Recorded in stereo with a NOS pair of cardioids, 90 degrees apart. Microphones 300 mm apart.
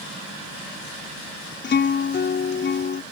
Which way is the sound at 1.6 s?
35° left.